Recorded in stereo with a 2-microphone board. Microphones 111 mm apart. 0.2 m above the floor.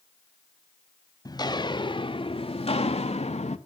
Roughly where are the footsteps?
Left.